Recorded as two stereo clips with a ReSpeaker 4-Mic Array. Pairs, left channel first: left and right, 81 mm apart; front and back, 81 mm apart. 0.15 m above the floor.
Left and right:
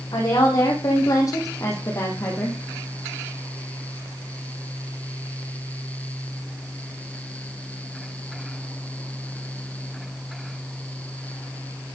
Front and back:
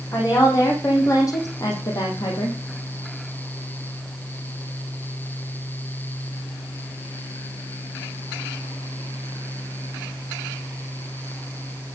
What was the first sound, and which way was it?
A woman speaking, 55° left.